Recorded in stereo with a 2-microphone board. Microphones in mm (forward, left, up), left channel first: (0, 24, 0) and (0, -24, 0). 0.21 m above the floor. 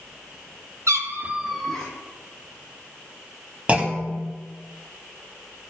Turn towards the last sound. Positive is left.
turn(degrees=-25)  # may be behind; listen again after turning